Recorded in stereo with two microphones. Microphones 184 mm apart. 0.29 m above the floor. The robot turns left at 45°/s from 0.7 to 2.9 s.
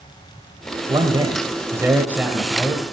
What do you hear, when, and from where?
0.9 s a man speaking: 30° right (ahead or behind), 1.1 m; by 2.8 s 5° left (ahead or behind), 1.1 m